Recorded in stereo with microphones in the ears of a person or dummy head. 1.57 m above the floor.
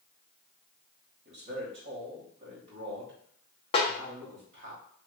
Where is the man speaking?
40° right (ahead or behind), 0.9 m.